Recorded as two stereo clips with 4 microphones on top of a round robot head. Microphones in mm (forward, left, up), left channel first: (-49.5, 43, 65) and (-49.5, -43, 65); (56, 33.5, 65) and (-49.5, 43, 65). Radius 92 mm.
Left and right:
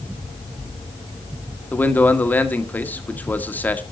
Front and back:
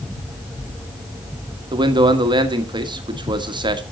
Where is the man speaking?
155° left, 1.5 m.